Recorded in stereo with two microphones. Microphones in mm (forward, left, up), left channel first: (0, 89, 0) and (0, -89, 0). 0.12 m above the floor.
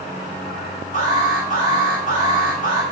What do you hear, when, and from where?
0.9 s an alarm: 40° left (ahead or behind), 8.5 m